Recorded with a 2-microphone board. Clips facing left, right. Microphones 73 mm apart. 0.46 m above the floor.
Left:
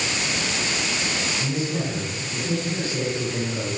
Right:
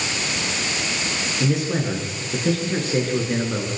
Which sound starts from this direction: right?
A man speaking, at 1.4 s.